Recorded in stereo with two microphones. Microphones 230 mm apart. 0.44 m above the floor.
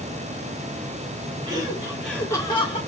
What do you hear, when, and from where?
1.5 s laughter: 20° right (ahead or behind), 1.6 m; by 2.8 s 30° left (ahead or behind), 1.4 m